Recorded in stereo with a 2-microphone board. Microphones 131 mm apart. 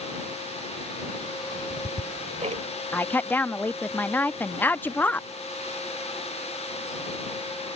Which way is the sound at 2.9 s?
15° left (ahead or behind).